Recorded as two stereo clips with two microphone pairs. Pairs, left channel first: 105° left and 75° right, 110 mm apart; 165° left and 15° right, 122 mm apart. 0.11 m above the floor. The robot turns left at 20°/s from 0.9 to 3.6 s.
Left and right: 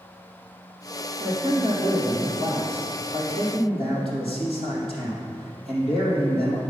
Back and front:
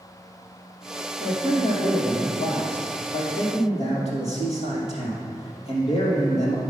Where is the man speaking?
120° right, 3 m; by 6.6 s 170° right, 3 m.